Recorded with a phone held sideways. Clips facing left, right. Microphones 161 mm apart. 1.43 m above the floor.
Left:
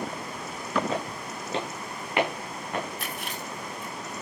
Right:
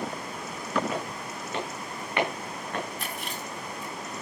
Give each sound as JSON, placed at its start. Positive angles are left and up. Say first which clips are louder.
{"t": 0.9, "sound": "footsteps", "louder": "left 2 dB", "side_deg": 25, "distance_m": 5.5}
{"t": 3.0, "sound": "chewing", "louder": "even", "side_deg": 5, "distance_m": 9.0}